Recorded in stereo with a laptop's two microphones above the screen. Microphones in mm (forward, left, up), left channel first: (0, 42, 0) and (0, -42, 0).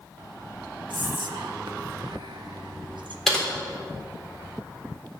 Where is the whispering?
70° right (ahead or behind), 1.2 m.